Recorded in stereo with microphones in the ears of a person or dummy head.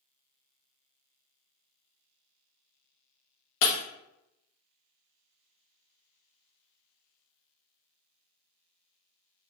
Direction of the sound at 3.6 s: 55° left (ahead or behind).